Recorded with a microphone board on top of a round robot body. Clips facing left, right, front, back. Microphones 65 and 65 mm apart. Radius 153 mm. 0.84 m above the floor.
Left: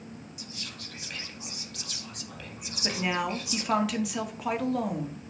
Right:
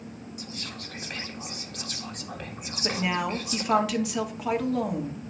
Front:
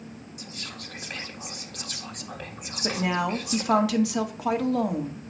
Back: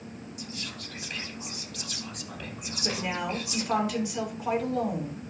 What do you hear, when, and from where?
0.4 s whispering: 40° right, 1.6 m
2.8 s a woman speaking: straight ahead, 1.8 m